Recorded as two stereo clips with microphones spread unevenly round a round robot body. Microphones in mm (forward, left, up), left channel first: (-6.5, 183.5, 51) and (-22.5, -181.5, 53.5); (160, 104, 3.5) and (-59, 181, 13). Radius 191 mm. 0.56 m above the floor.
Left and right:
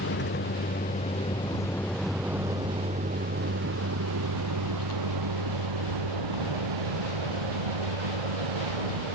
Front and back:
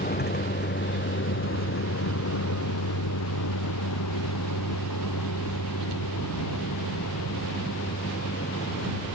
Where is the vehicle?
25° left; by 9.2 s 85° right.